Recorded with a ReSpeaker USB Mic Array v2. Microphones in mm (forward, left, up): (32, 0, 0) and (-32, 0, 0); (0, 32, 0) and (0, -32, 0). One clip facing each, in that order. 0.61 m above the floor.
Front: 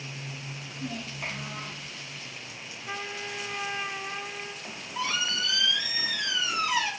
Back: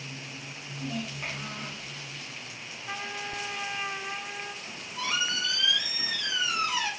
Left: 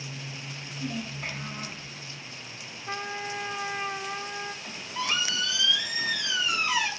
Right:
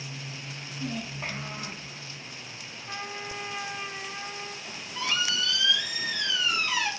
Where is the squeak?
15° left, 1.0 m.